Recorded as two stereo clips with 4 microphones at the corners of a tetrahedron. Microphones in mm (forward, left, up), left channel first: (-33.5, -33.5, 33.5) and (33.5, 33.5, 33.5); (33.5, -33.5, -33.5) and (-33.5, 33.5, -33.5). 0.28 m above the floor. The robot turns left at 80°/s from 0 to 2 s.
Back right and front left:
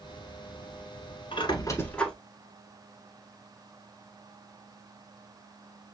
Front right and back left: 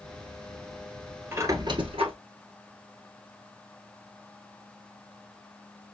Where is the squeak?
160° right, 1.0 m; by 2.1 s 145° left, 1.0 m.